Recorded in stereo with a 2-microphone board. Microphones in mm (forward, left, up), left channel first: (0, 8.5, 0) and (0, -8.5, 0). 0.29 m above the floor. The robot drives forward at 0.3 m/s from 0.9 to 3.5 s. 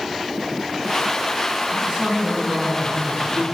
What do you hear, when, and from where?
1.7 s a man speaking: 60° right (ahead or behind), 2 m; by 3.5 s 50° right (ahead or behind), 2.5 m